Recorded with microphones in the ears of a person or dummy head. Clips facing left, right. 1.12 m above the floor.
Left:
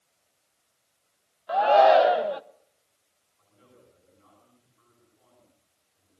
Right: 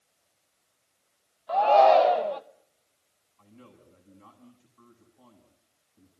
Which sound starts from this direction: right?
A man speaking, at 3.4 s.